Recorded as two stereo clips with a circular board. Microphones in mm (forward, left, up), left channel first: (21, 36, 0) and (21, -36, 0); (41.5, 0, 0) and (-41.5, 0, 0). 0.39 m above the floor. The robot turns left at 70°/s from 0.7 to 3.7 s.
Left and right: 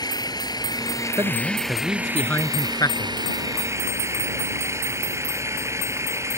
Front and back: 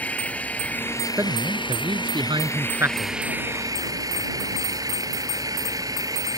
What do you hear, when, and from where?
0.0 s an engine running: 75° left; by 6.4 s 135° right
1.2 s a man speaking: 125° right; by 3.1 s 100° left